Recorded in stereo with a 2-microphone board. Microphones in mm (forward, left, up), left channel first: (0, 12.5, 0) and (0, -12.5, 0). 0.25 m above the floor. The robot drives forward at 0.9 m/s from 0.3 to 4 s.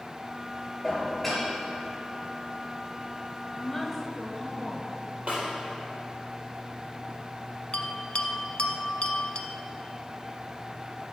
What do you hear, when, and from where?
0.8 s dishes clattering: centre (ahead or behind), 3 m; by 1.5 s 5° left (ahead or behind), 2.5 m
3.5 s a woman speaking: 5° left (ahead or behind), 1.4 m
5.3 s a snare drum: 70° right (ahead or behind), 4 m
7.7 s a bell: 50° left (ahead or behind), 0.7 m